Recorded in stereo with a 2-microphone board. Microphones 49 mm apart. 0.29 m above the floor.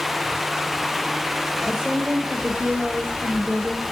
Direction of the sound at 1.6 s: 15° right (ahead or behind).